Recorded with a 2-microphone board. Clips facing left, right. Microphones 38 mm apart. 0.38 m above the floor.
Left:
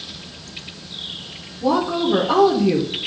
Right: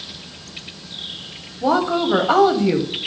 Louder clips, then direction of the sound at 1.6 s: Right 1 dB; 60° right (ahead or behind).